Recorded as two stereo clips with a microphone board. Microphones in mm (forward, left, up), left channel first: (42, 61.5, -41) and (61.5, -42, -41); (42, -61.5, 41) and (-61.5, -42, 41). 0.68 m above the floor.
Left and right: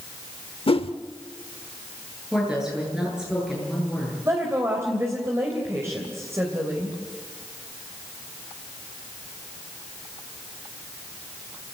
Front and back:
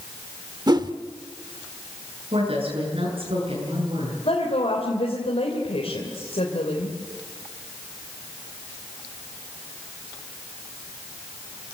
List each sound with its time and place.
0.7 s a whoosh: 125° left, 0.9 m
2.3 s a woman speaking: 160° right, 8.5 m
4.2 s a woman speaking: 15° right, 3 m